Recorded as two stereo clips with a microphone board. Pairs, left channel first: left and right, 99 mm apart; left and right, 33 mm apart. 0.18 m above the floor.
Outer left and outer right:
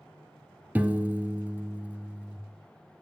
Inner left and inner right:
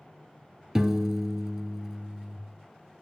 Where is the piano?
15° right (ahead or behind), 0.5 m.